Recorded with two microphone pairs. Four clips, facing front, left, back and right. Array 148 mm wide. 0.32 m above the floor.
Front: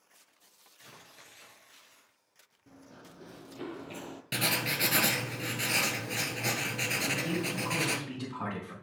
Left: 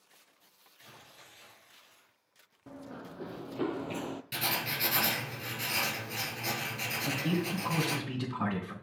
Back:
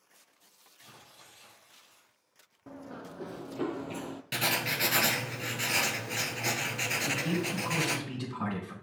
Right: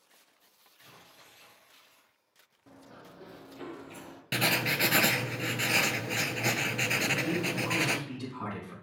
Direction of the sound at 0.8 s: 5° left.